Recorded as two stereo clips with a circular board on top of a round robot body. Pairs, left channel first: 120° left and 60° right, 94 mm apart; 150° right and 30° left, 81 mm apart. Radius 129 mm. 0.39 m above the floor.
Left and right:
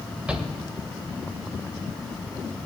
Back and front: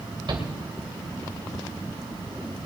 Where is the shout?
15° left, 2.5 m.